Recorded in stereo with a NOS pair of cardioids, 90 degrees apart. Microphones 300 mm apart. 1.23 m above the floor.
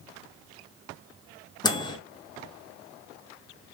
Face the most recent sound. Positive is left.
turn(degrees=15)